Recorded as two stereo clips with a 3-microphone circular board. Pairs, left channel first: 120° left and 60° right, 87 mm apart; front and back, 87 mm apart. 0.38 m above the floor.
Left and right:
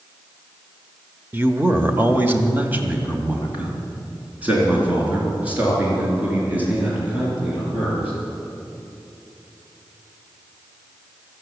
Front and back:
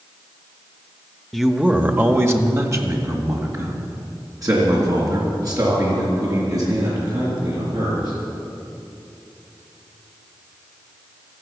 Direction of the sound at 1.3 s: 90° right.